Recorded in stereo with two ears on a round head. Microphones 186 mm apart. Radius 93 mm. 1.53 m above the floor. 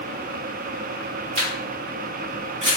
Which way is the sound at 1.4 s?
35° right (ahead or behind).